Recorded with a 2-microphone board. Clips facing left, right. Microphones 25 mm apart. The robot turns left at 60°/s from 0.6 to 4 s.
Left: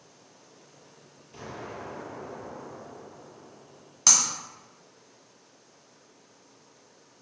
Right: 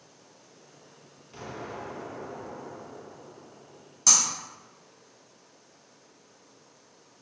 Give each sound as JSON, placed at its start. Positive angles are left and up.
{"t": 1.3, "sound": "an explosion", "azimuth_deg": -50, "distance_m": 1.6}
{"t": 4.1, "sound": "breaking glass", "side_deg": 30, "distance_m": 0.7}